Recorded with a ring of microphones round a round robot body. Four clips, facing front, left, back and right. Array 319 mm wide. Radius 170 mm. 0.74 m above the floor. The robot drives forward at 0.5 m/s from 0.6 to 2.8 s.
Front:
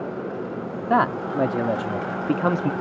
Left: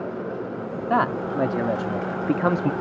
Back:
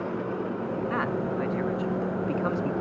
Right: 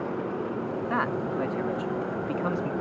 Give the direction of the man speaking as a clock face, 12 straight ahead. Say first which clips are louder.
Left 8 dB, front 11 dB; 11 o'clock.